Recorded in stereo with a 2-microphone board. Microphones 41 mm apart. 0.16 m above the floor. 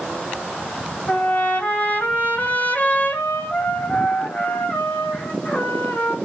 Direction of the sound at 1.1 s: 40° left (ahead or behind).